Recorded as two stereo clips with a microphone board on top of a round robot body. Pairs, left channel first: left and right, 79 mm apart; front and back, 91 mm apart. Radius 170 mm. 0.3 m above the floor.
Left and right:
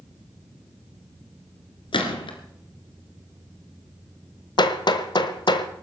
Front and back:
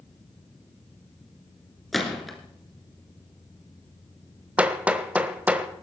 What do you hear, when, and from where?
1.9 s a gunshot: 90° left, 2.5 m
4.6 s hammering: 105° left, 1.4 m